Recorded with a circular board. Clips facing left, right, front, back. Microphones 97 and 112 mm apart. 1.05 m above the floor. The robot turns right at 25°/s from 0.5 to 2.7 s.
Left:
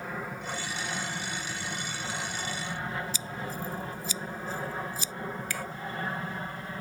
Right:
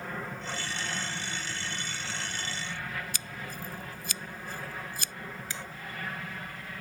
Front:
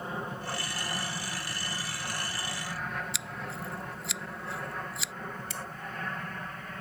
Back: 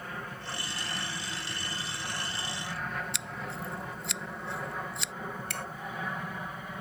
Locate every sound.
0.0 s an aircraft: 15° left; by 6.8 s 110° left
3.1 s scissors: 90° right
5.5 s a finger snap: 155° right